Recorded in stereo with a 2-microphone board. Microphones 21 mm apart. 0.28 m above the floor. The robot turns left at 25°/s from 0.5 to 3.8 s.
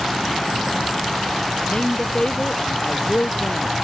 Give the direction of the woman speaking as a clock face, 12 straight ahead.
7 o'clock.